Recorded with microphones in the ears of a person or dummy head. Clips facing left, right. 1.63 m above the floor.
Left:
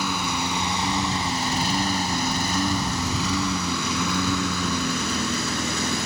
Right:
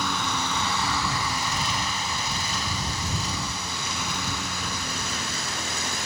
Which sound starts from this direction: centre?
A lawn mower, at 0.0 s.